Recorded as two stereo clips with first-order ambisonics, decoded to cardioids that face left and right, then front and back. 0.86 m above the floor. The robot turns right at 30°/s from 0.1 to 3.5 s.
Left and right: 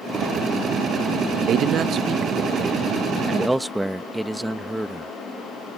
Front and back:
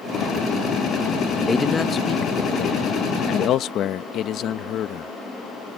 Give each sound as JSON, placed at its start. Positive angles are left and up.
{"t": 1.5, "sound": "a man speaking", "azimuth_deg": -65}